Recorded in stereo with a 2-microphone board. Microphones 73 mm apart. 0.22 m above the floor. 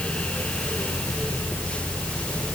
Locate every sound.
Only background noise.